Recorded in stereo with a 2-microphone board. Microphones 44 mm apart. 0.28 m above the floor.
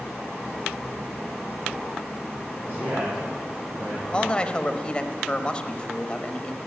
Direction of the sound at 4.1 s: 25° left (ahead or behind).